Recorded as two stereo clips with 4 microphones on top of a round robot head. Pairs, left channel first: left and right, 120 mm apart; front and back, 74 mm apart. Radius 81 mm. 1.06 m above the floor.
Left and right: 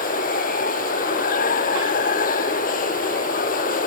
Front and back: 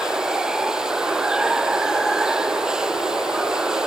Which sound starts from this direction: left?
Running water, at 0.0 s.